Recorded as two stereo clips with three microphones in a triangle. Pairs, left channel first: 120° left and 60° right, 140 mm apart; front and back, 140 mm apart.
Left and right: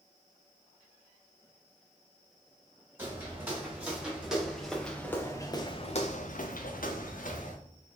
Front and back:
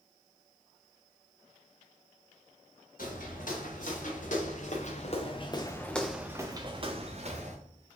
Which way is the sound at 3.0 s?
15° left.